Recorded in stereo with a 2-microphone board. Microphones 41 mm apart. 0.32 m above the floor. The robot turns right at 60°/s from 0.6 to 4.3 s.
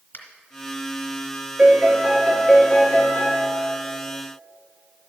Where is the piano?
35° right, 1.8 m; by 3.4 s 70° left, 1.8 m.